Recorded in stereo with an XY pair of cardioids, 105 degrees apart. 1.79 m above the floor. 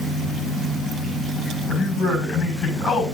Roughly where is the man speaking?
Ahead left.